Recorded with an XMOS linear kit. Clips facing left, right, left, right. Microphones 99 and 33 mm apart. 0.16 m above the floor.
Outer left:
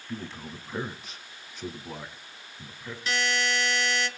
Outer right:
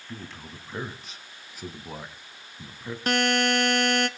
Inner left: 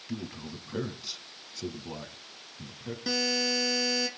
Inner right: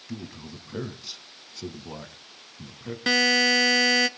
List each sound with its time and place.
0.1 s a man speaking: 5° left (ahead or behind), 2.5 m; by 3.0 s 20° right (ahead or behind), 1.7 m
3.1 s a buzzer: 60° right (ahead or behind), 0.8 m